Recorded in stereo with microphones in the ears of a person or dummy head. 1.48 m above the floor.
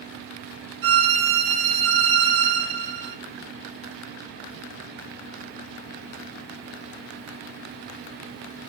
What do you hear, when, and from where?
0.8 s a violin: 65° right (ahead or behind), 0.8 m